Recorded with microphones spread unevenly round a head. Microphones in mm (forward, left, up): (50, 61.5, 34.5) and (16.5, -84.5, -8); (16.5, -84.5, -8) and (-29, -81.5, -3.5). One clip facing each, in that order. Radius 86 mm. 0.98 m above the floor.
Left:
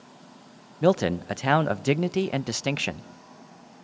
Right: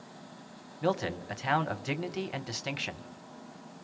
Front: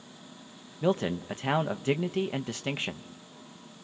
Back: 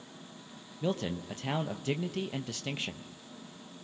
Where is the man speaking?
55° left, 0.6 m.